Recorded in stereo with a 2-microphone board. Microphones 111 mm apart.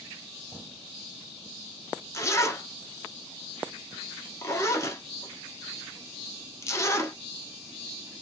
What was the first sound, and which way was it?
A zipper, 25° left (ahead or behind).